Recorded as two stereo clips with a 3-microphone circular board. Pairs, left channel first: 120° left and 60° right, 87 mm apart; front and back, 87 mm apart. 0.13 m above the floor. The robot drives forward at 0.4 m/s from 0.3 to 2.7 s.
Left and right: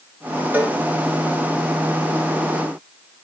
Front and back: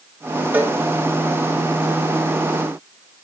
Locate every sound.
0.5 s a cowbell: 125° right, 2 m